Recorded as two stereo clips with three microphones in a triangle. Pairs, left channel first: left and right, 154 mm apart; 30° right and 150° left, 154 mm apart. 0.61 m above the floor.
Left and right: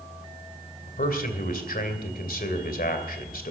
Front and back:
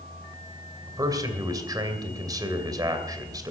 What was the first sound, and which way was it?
A man speaking, 85° left.